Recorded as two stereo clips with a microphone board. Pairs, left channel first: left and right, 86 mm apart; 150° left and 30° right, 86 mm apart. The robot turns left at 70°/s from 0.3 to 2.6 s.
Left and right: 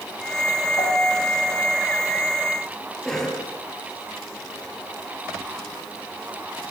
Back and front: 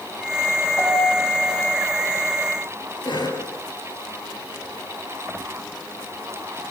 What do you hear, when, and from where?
0.8 s a piano: 100° left, 6.5 m; by 1.6 s 40° left, 6.5 m
3.0 s a cough: 175° left, 5.5 m